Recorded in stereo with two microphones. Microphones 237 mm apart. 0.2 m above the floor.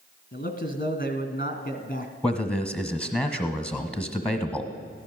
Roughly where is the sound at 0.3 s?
Left.